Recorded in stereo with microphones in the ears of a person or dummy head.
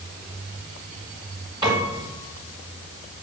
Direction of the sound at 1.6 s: 30° right (ahead or behind).